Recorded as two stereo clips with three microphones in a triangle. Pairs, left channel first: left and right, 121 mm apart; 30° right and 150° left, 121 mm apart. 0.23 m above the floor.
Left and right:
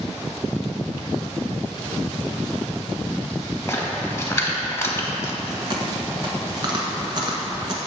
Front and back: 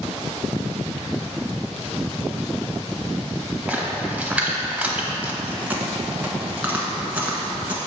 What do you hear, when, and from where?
3.7 s a splash: 90° left, 1.1 m
5.4 s chewing: 135° right, 1.2 m